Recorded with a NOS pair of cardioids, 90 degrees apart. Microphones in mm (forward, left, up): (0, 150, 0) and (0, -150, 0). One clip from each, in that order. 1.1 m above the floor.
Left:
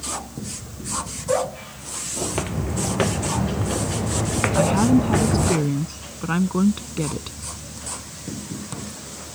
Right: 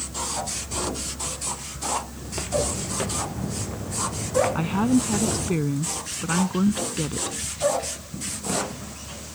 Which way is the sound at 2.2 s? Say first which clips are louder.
Right 3 dB; 50° left.